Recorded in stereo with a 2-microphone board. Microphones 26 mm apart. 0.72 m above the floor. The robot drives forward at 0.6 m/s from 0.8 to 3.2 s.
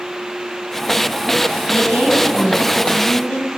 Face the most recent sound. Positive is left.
turn(degrees=70)  # may be behind; listen again after turning